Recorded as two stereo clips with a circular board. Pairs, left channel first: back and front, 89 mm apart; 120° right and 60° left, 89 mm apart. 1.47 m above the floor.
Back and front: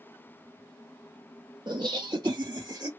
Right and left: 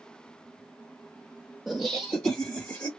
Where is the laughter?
30° right, 0.8 m; by 2.9 s 50° right, 1.3 m.